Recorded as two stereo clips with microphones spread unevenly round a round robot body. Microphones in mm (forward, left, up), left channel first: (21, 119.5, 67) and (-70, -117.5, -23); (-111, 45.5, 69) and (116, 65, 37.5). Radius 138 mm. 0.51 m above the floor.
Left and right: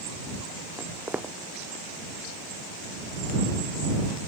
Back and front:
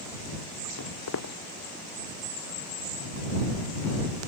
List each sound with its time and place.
0.8 s footsteps: 165° left